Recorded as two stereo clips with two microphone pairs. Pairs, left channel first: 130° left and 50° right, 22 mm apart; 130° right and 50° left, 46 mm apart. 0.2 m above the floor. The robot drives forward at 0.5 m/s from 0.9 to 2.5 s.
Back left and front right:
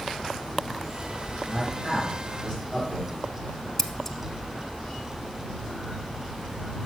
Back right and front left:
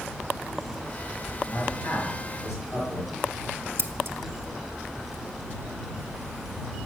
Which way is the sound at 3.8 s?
65° left.